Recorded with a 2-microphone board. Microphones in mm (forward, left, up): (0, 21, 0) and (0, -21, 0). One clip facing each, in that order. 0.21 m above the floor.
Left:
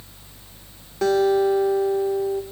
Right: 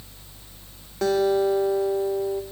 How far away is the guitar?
About 3.5 m.